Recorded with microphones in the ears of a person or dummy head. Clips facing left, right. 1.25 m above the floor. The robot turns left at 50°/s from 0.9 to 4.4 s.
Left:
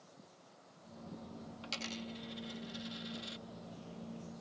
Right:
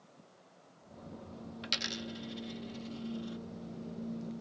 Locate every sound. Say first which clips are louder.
1.6 s a dropped coin: right 2 dB; 20° right (ahead or behind); by 3.4 s 30° left (ahead or behind)